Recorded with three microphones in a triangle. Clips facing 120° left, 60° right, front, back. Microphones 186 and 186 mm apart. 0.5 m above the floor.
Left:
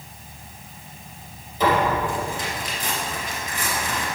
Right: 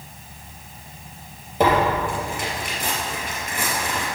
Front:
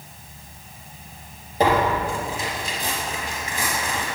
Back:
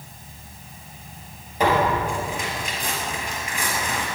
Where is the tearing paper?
50° right, 2.5 m.